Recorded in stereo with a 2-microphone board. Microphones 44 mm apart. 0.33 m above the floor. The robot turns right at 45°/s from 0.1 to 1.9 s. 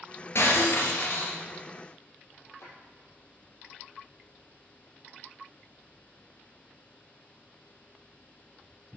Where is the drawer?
85° left, 4.5 m.